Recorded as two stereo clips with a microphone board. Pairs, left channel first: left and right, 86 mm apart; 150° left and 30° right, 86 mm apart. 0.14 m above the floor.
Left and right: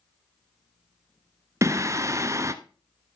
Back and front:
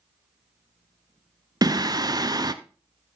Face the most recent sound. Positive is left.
turn(degrees=-45)